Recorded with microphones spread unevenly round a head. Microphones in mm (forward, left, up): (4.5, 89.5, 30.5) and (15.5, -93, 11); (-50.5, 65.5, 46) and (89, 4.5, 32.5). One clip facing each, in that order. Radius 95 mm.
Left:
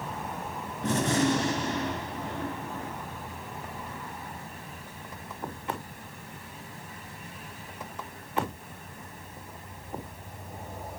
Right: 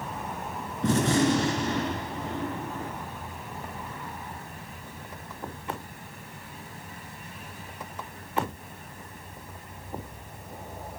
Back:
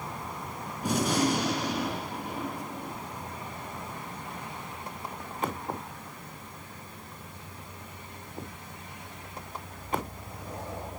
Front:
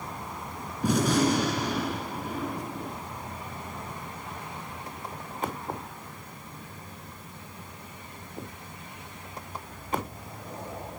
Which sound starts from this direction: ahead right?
A gunshot, at 0.8 s.